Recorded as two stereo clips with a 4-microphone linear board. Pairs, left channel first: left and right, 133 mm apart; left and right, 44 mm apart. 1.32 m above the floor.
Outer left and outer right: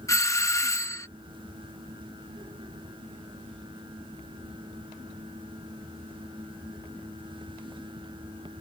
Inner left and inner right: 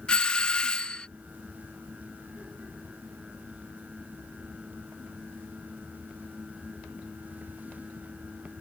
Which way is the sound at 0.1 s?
25° left (ahead or behind).